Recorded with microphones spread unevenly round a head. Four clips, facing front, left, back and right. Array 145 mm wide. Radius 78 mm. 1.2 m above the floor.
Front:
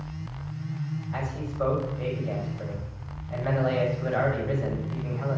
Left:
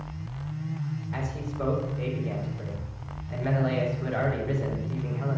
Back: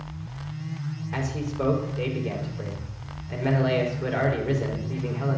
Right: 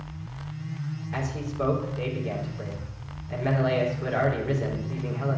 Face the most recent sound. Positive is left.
turn(degrees=-150)